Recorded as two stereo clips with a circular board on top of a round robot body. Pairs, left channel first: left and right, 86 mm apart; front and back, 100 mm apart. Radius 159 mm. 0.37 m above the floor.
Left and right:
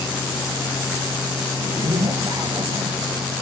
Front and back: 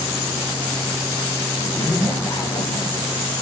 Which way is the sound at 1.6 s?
55° right.